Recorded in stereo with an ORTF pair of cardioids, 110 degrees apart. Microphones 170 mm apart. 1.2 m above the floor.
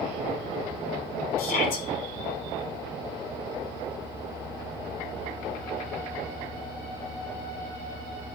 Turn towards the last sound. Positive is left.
turn(degrees=60)